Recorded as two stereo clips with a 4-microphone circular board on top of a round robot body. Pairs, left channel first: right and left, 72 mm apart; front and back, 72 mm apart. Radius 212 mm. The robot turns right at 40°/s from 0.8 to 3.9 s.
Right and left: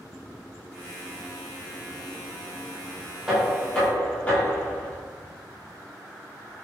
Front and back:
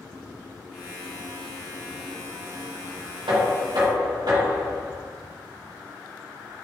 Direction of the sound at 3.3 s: 175° left.